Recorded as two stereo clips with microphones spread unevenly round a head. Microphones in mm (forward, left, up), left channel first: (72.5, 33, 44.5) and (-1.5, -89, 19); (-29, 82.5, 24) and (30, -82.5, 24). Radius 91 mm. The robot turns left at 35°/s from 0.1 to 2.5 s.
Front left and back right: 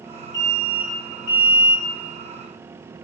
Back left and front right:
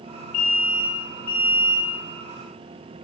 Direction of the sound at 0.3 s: 105° left.